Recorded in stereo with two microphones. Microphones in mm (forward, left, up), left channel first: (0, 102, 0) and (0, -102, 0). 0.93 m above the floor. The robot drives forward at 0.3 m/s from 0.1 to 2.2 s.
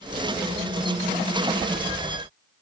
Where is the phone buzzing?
No phone buzzing in this recording.